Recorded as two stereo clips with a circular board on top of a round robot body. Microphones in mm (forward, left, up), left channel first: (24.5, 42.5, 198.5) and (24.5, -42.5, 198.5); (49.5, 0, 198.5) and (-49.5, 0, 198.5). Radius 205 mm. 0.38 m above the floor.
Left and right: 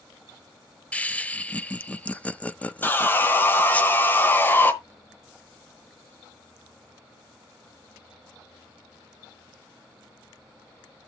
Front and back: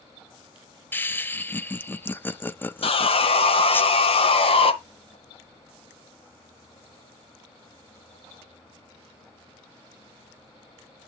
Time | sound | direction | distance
0.9 | laughter | 40° left | 0.8 m
2.8 | sawing | 20° left | 1.2 m